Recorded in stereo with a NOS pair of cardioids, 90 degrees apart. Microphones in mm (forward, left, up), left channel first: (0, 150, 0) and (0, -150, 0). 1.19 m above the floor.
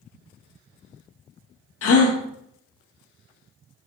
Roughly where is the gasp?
Ahead left.